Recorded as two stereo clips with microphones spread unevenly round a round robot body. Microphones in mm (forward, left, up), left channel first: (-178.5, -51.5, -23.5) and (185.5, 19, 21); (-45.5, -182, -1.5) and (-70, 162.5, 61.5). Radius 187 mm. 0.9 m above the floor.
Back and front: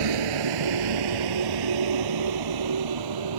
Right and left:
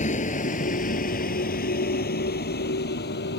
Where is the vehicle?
15° right; by 3.4 s 20° right.